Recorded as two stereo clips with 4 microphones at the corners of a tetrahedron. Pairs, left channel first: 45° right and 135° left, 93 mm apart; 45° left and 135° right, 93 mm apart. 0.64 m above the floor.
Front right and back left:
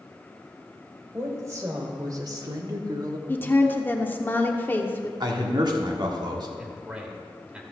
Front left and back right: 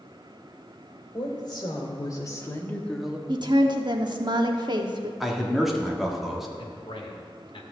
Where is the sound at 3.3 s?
110° right, 1.0 m.